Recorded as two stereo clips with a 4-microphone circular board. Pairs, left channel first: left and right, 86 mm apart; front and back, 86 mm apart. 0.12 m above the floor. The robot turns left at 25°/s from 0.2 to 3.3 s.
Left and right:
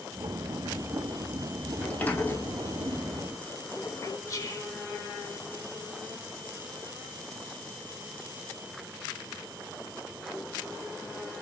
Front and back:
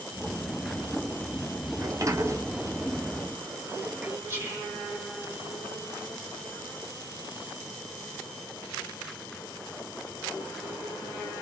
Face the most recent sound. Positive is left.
turn(degrees=130)